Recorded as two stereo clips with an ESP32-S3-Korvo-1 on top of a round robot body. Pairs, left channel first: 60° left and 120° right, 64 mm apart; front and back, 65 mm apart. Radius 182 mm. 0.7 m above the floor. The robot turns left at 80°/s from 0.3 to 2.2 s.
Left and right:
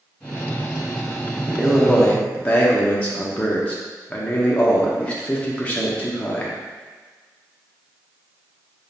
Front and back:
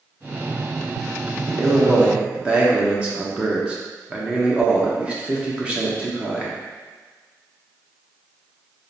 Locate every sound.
1.5 s a man speaking: straight behind, 1.1 m; by 6.5 s 120° left, 1.1 m